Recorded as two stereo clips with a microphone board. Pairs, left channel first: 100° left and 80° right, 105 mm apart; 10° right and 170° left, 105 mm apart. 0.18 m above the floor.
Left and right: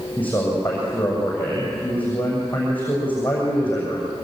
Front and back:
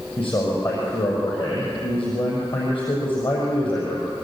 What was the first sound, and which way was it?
A man speaking, 25° left.